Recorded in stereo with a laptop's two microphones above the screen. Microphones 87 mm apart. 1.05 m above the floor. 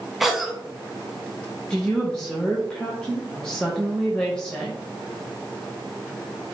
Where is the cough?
Centre (ahead or behind), 0.5 m.